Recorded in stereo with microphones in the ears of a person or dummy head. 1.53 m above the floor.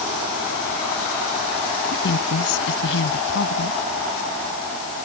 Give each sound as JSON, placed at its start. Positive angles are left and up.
{"t": 1.9, "sound": "a woman speaking", "side_deg": 65}